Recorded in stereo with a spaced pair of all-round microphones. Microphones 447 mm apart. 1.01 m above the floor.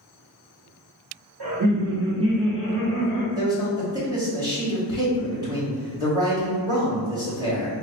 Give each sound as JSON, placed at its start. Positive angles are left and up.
{"t": 1.4, "sound": "laughter", "side_deg": -55, "distance_m": 0.9}
{"t": 3.4, "sound": "a man speaking", "side_deg": -10, "distance_m": 1.6}